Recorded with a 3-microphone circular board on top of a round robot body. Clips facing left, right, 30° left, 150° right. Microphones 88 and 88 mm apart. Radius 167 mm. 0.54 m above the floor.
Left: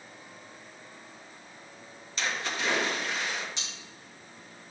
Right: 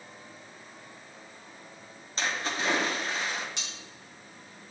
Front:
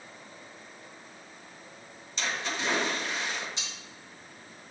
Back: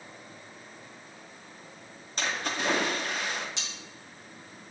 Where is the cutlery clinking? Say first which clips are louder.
Even, back 1 dB; 125° right, 2.5 m.